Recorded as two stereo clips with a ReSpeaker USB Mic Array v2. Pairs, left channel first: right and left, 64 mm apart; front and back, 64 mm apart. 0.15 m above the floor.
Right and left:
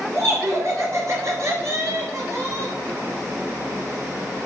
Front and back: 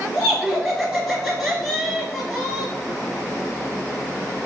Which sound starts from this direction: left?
Laughter, at 0.1 s.